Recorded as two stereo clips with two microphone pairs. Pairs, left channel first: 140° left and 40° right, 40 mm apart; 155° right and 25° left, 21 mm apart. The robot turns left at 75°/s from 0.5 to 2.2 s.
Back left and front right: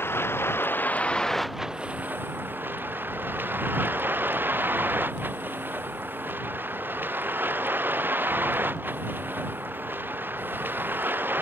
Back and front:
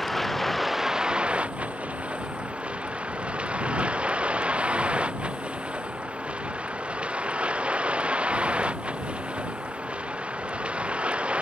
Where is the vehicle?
120° left; by 11.4 s 5° right.